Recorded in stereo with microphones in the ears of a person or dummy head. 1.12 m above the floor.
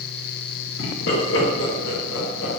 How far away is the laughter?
About 1.5 m.